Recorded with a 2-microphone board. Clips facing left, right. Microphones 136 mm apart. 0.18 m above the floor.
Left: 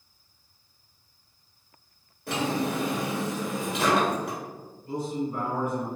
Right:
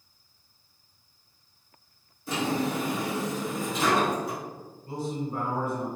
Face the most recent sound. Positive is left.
turn(degrees=-30)  # may be behind; listen again after turning